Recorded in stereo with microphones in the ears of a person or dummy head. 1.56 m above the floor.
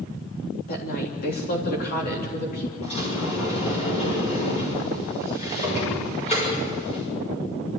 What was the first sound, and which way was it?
A woman speaking, 55° left (ahead or behind).